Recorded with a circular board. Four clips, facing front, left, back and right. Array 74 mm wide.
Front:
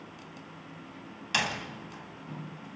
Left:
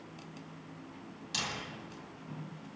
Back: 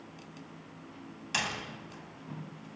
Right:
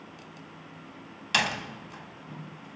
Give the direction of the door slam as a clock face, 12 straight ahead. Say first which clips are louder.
Right 11 dB, front 4 dB; 3 o'clock.